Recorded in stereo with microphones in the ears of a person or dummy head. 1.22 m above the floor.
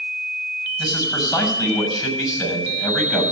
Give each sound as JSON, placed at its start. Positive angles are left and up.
{"t": 0.8, "sound": "a man speaking", "side_deg": 0, "distance_m": 6.0}